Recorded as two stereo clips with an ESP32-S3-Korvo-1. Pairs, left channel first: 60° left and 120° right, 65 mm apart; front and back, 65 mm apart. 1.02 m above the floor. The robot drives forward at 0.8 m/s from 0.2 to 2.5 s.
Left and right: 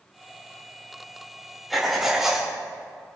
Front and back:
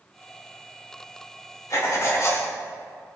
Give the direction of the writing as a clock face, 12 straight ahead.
1 o'clock.